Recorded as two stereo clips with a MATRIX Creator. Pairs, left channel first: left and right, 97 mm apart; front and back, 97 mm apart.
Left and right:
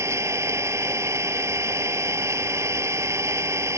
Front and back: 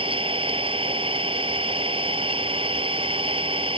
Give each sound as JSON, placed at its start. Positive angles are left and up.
{"t": 0.0, "sound": "an engine running", "azimuth_deg": -155}